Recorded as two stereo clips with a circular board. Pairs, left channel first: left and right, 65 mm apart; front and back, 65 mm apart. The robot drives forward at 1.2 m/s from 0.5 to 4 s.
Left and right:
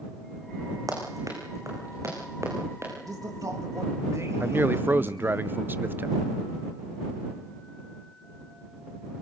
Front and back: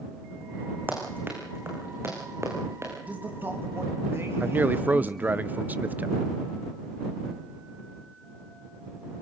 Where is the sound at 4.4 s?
130° right, 0.7 m.